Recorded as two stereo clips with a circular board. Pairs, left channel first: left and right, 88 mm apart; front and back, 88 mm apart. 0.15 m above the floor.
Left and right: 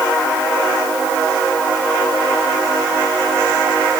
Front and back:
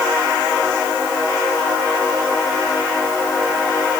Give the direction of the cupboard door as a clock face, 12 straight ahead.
No cupboard door in this recording.